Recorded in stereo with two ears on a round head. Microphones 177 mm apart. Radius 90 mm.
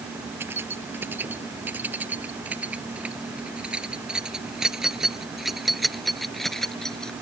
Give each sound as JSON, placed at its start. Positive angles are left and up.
{"t": 0.4, "sound": "keys jangling", "side_deg": -10}